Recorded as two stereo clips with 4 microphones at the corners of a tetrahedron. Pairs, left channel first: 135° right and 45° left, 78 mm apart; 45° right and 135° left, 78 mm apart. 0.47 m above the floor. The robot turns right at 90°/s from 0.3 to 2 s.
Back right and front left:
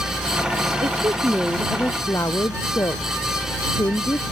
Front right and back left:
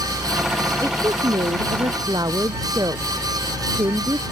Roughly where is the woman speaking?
Ahead left.